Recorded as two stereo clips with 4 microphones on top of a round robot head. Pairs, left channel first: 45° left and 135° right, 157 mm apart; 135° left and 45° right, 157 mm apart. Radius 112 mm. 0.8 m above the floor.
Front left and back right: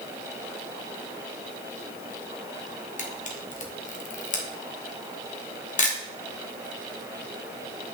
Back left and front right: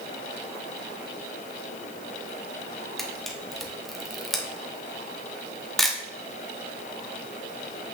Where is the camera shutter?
45° left, 1.4 m.